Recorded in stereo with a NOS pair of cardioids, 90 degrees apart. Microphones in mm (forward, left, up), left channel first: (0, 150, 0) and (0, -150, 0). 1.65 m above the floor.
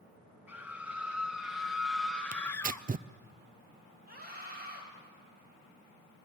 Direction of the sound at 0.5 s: 5° right.